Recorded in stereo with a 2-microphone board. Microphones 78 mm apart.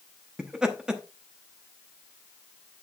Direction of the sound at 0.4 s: 10° right (ahead or behind).